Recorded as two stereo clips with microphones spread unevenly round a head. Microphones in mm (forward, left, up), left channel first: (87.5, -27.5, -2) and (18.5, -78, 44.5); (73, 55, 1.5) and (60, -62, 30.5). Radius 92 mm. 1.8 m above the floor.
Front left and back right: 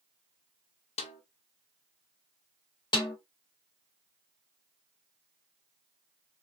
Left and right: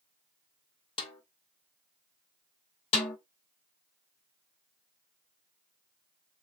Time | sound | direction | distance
1.0 | a snare drum | 40° left | 1.2 m
2.9 | a snare drum | 120° left | 1.6 m